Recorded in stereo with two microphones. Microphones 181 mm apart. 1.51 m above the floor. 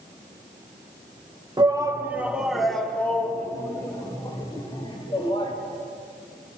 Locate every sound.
1.6 s a shout: 25° right (ahead or behind), 1.7 m; by 5.5 s 30° left (ahead or behind), 3.5 m